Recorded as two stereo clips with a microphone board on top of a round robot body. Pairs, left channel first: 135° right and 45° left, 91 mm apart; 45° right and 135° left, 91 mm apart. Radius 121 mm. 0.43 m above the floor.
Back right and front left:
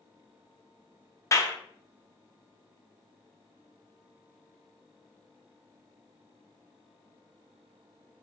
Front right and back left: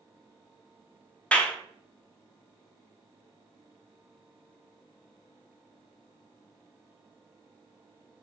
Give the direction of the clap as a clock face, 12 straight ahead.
4 o'clock.